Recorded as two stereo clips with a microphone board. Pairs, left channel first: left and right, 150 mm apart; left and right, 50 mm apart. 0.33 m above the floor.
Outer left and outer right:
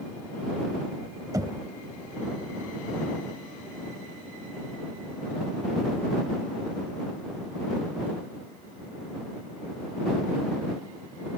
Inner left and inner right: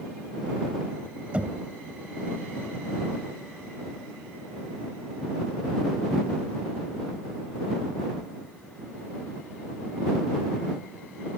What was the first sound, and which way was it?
Knocking, 25° right (ahead or behind).